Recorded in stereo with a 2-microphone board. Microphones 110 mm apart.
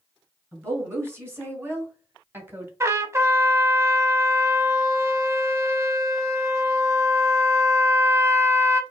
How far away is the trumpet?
About 0.5 m.